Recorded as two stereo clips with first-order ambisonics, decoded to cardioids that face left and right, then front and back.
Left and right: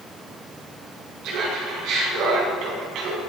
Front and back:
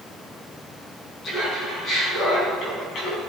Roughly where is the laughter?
Ahead right.